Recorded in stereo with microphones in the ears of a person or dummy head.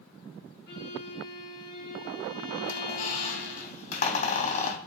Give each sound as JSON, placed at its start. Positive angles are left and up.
{"t": 0.7, "sound": "a violin", "side_deg": 65, "distance_m": 8.0}
{"t": 2.6, "sound": "a squeak", "side_deg": 45, "distance_m": 2.0}